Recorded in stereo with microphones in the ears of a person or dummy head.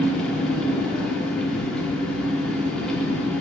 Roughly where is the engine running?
Centre.